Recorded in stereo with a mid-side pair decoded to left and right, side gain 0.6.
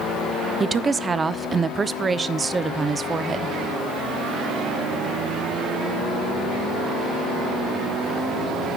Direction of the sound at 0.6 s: 25° right.